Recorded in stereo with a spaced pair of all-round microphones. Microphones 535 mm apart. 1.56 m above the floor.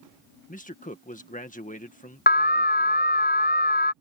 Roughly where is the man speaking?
Centre.